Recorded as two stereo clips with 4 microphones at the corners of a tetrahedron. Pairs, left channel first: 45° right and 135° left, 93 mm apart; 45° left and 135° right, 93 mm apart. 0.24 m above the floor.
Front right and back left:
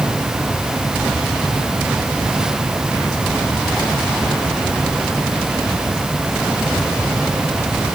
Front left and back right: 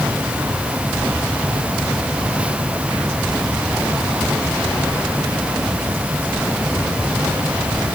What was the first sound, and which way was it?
Only background noise.